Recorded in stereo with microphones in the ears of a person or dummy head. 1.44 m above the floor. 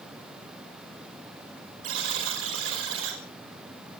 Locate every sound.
1.8 s a buzzer: 90° right, 5.5 m